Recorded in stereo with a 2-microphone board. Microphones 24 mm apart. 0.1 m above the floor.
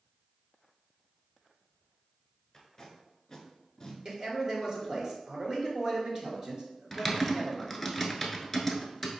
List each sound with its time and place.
2.5 s tape being pulled: 25° left (ahead or behind), 1.1 m
4.0 s a man speaking: 35° right (ahead or behind), 1.3 m
6.9 s typing on a keyboard: 10° left (ahead or behind), 0.6 m